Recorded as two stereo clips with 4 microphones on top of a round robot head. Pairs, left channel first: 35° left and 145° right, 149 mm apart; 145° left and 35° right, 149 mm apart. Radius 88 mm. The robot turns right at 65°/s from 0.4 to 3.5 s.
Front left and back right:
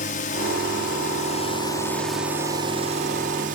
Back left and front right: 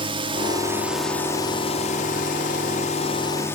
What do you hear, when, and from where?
0.0 s a drone: 15° left; by 3.6 s 145° right